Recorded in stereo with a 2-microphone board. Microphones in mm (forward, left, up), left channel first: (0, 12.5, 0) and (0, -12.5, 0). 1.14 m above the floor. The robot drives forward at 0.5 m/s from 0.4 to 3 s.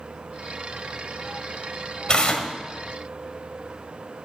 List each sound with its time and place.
2.1 s tearing paper: 40° left (ahead or behind), 1.7 m; by 2.5 s 35° left (ahead or behind), 1.8 m